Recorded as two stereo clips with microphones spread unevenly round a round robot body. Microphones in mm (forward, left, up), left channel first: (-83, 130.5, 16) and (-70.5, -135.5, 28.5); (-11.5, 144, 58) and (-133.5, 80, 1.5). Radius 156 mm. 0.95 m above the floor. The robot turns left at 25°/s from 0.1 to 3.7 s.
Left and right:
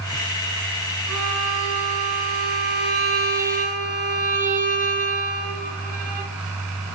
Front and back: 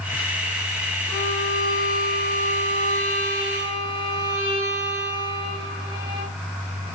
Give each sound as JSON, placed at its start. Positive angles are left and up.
{"t": 1.1, "sound": "a violin", "azimuth_deg": -80, "distance_m": 1.0}